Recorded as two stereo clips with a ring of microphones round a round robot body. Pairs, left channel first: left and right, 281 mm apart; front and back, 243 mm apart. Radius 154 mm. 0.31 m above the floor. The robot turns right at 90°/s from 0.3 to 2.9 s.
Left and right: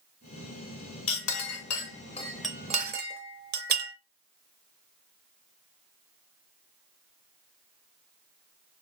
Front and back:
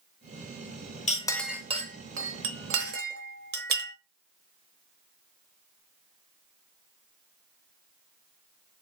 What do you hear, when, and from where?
1.1 s a clink: 55° left, 0.7 m; by 3.9 s 140° right, 0.7 m